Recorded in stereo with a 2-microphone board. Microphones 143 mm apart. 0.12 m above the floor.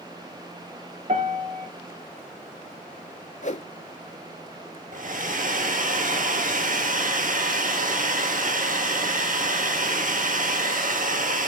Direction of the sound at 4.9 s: 65° right (ahead or behind).